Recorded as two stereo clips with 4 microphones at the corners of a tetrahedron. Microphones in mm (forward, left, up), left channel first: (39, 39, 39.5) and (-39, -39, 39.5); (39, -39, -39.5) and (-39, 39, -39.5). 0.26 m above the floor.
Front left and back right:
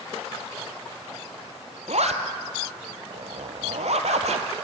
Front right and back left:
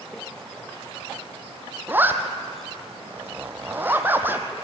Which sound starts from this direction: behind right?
A zipper, at 1.9 s.